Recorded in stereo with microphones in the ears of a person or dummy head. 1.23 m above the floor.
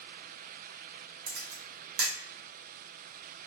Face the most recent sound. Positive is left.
turn(degrees=-55)  # may be behind; listen again after turning